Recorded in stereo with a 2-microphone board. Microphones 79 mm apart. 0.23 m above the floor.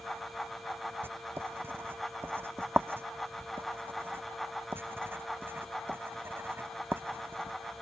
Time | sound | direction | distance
1.0 | writing | 30° right (ahead or behind) | ?